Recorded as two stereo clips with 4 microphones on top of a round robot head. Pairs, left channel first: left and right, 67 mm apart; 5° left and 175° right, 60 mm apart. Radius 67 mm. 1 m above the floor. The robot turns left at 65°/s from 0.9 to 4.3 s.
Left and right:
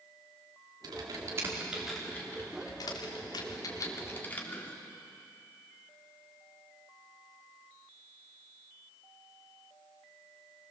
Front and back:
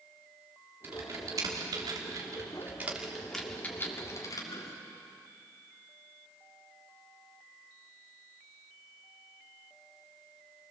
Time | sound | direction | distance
0.8 | typing on a keyboard | 115° right | 3 m